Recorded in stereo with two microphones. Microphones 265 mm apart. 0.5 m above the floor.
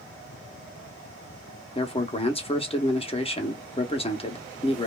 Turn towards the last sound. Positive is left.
turn(degrees=20)  # may be behind; listen again after turning